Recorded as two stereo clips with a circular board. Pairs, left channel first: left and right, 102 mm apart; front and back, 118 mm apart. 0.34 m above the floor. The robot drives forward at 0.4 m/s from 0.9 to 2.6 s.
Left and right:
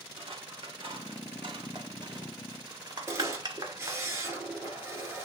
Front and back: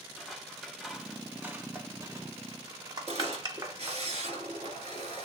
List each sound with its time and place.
0.2 s scissors: 95° right, 0.9 m; by 4.1 s 130° right, 1.2 m
3.1 s a camera shutter: 155° right, 1.6 m